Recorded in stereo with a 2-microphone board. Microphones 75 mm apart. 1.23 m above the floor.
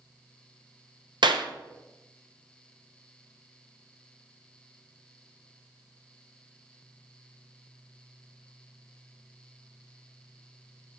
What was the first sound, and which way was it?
A clap, 80° right.